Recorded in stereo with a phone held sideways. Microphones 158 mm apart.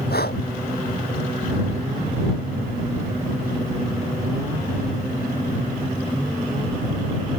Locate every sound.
0.1 s breathing: 80° left